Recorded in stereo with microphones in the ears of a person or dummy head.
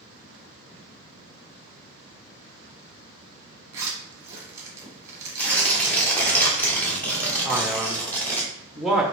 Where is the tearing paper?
5° left (ahead or behind), 1.3 m.